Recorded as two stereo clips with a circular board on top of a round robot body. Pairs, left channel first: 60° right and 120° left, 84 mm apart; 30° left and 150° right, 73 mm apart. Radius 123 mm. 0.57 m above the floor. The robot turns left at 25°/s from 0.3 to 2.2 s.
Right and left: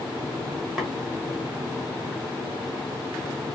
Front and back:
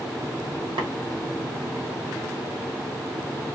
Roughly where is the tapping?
Behind right.